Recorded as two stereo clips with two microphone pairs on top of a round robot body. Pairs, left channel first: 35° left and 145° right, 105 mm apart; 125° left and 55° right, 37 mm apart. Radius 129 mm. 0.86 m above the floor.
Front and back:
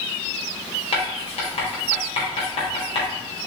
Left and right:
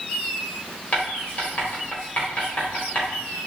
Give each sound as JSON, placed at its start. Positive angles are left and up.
{"t": 0.9, "sound": "writing", "azimuth_deg": 70, "distance_m": 1.8}